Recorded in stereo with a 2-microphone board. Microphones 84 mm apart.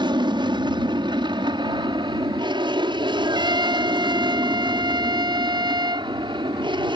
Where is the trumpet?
60° right (ahead or behind).